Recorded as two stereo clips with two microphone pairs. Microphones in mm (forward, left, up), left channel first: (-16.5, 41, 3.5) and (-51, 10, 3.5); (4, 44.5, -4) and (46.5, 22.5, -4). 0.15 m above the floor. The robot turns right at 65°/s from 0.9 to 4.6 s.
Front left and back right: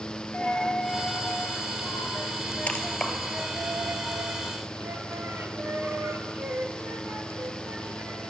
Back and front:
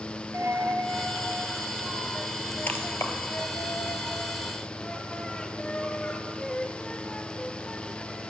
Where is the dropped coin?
15° right, 1.1 m; by 8.3 s 135° right, 1.1 m.